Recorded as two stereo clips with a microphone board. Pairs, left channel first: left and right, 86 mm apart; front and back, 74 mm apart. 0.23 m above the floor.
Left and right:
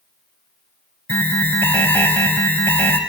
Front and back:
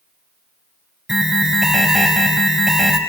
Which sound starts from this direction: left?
An alarm, at 1.1 s.